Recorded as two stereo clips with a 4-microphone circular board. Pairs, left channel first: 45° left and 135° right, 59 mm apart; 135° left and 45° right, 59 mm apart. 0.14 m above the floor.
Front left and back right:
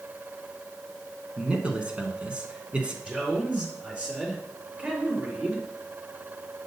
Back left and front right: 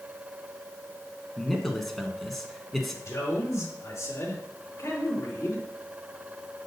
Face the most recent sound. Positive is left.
turn(degrees=160)